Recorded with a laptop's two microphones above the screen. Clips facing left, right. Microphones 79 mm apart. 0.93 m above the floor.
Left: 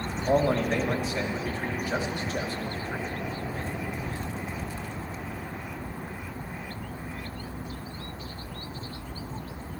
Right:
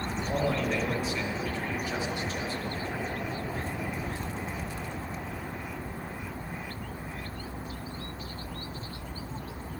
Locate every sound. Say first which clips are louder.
0.3 s a man speaking: left 6 dB; 55° left (ahead or behind), 2.5 m